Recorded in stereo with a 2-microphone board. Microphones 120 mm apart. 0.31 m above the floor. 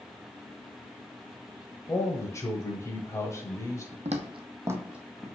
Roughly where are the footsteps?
Right.